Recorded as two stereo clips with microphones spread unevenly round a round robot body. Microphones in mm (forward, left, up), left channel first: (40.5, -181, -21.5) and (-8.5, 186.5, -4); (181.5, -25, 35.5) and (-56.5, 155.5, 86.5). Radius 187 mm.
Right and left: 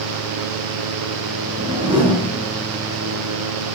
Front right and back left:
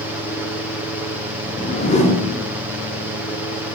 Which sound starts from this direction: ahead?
A whoosh, at 1.4 s.